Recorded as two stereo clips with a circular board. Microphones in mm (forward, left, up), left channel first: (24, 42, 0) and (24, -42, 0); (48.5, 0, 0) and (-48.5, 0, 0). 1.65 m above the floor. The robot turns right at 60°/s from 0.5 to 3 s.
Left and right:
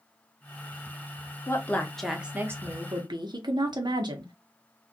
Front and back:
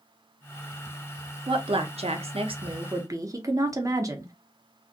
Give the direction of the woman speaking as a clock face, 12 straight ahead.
7 o'clock.